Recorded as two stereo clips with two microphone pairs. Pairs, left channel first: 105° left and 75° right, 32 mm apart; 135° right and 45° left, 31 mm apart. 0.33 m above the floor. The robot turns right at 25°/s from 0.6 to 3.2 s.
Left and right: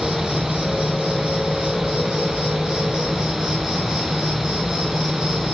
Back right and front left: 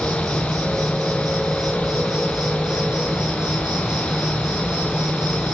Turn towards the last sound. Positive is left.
turn(degrees=-10)